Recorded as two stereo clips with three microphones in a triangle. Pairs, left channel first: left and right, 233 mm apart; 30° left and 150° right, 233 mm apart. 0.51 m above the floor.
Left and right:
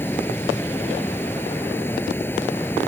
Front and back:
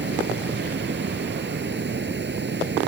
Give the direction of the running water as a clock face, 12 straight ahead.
6 o'clock.